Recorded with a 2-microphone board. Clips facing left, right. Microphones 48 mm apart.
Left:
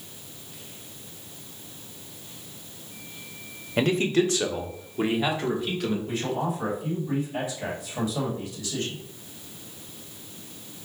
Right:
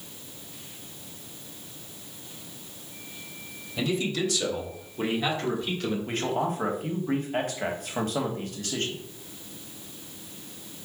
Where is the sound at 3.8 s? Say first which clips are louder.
Left 5 dB; 50° left (ahead or behind), 0.8 m; by 6.0 s 5° left (ahead or behind), 2 m.